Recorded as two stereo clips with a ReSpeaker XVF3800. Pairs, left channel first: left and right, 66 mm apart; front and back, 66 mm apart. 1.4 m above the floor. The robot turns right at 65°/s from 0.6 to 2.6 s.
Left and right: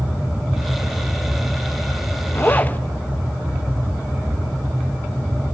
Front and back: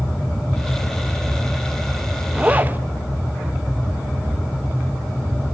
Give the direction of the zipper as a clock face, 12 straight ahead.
8 o'clock.